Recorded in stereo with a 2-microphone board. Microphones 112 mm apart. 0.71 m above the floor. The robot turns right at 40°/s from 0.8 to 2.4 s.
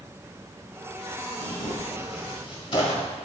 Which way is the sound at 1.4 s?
85° left.